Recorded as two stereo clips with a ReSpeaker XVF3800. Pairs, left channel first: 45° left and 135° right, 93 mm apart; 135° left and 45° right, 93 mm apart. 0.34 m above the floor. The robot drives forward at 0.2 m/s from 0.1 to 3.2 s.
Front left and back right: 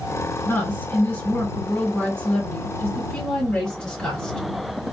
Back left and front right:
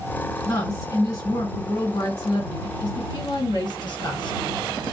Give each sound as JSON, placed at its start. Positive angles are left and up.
{"t": 0.5, "sound": "a woman speaking", "azimuth_deg": 105, "distance_m": 1.9}